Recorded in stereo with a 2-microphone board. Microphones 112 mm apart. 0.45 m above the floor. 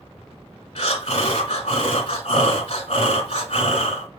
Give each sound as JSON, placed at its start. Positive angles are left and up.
{"t": 0.8, "sound": "breathing", "side_deg": 75, "distance_m": 1.2}